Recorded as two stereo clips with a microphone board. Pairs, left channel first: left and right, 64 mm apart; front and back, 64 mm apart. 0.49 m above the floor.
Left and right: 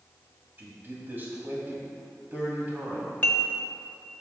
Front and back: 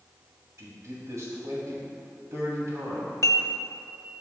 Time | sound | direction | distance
0.6 | a man speaking | 145° right | 2.5 m
3.2 | dishes clattering | 30° left | 1.1 m